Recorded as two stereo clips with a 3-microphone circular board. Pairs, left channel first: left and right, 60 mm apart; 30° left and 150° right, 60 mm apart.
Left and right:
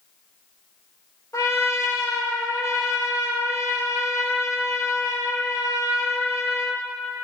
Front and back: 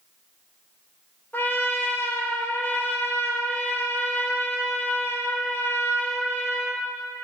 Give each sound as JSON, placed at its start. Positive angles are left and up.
{"t": 1.3, "sound": "a trumpet", "azimuth_deg": 85, "distance_m": 1.1}